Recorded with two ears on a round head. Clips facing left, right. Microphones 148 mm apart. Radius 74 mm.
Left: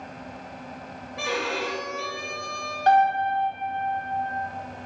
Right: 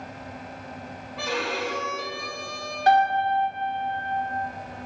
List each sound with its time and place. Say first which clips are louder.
1.2 s a violin: even; 20° left (ahead or behind), 1.5 m
2.9 s a piano: even; 10° right (ahead or behind), 1.9 m